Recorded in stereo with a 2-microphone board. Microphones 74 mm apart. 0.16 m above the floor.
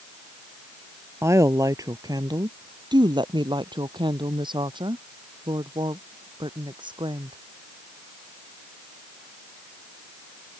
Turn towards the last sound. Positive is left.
turn(degrees=-75)  # may be behind; listen again after turning